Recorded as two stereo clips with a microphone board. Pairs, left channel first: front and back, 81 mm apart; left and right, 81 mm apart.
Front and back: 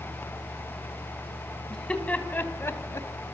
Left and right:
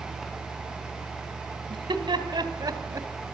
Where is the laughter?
80° right, 3.5 m; by 3.1 s 40° right, 3 m.